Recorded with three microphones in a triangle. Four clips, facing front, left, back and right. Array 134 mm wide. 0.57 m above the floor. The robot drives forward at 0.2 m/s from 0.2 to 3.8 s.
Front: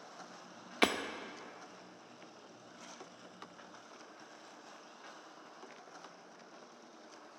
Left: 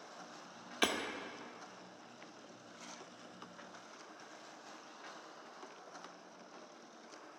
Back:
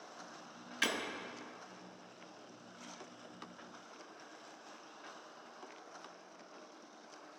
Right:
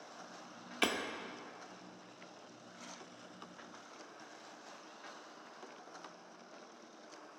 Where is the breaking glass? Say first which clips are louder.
Even, front 6 dB; 5° left, 0.6 m.